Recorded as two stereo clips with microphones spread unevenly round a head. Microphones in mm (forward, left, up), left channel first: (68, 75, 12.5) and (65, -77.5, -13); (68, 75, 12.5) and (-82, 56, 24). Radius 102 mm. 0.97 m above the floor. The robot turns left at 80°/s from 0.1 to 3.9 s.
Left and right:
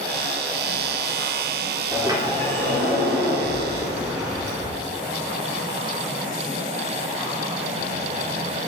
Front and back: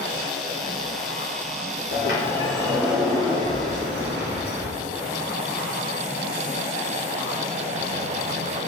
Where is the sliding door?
10° right, 2.5 m; by 4.8 s 170° right, 2.5 m.